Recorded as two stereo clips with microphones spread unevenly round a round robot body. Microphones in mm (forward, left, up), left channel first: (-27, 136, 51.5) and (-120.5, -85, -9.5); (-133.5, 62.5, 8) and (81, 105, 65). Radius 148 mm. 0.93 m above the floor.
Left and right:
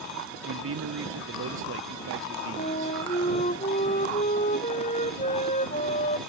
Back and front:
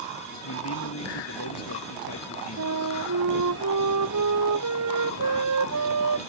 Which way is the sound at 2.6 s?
Straight ahead.